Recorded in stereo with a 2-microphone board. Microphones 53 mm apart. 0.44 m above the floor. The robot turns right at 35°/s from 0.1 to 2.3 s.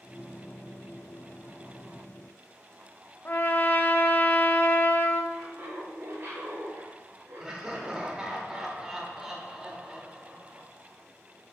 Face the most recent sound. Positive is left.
turn(degrees=-10)  # may be behind; listen again after turning